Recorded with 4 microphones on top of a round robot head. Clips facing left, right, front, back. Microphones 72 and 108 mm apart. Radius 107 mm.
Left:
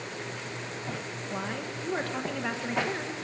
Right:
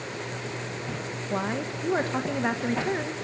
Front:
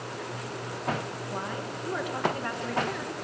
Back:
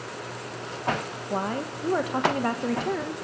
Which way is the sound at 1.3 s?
150° right.